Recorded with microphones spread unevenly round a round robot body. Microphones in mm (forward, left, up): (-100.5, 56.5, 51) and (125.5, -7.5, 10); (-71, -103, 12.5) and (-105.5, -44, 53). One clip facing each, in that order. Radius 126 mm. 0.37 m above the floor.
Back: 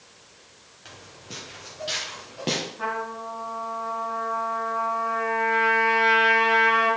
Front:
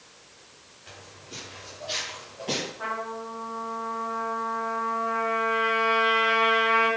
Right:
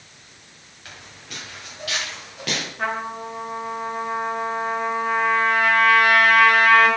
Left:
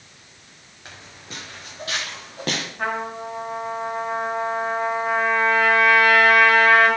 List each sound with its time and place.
0.8 s footsteps: straight behind, 5.5 m; by 2.7 s 160° left, 4.5 m
2.8 s a trumpet: 145° right, 4.5 m